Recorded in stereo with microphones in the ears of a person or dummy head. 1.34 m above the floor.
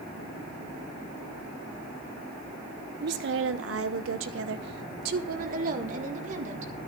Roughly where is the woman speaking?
Right.